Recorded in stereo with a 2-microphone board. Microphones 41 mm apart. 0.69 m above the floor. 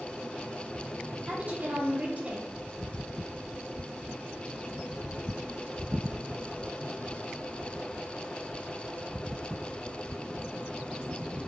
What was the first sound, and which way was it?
A woman speaking, 40° right (ahead or behind).